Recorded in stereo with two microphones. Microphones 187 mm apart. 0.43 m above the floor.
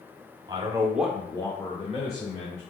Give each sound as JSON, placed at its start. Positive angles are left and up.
{"t": 0.5, "sound": "a man speaking", "side_deg": -25, "distance_m": 0.9}